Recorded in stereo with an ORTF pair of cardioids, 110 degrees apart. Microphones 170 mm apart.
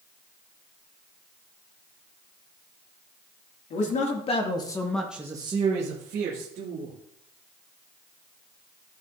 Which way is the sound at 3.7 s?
50° left.